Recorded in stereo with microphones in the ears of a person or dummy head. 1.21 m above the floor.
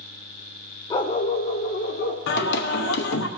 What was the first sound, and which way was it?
A dog barking, 30° left (ahead or behind).